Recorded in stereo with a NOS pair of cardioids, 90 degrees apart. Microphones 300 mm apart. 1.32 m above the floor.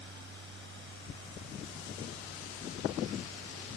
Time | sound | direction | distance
0.0 | a fan | 40° right | ?